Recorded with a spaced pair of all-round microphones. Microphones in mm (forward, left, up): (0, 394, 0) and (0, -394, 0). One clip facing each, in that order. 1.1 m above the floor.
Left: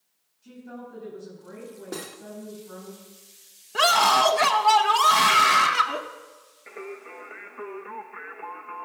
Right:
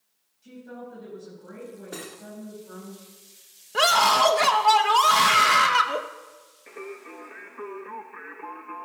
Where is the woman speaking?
15° right (ahead or behind), 6 m.